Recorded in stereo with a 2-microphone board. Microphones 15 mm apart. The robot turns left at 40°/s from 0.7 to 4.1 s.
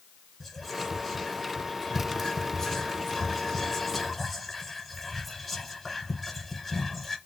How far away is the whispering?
About 1.4 m.